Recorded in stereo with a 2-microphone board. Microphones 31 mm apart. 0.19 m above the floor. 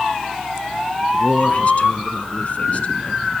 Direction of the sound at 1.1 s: 50° left (ahead or behind).